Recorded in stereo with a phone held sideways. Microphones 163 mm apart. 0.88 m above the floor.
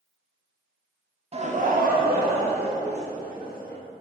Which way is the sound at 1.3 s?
35° right (ahead or behind).